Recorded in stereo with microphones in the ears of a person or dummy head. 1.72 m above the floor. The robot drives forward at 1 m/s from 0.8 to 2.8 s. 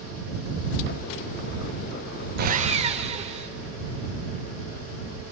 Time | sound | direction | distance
2.4 | sawing | 50° right (ahead or behind) | 0.7 m